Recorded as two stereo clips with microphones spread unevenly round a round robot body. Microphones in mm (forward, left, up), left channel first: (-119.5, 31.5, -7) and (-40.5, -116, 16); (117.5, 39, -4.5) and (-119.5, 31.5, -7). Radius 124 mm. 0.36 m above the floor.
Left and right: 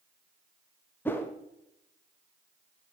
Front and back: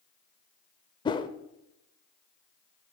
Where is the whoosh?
60° left, 0.9 m.